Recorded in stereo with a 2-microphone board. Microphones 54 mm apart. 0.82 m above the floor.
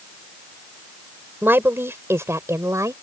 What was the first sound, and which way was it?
A woman speaking, 40° right (ahead or behind).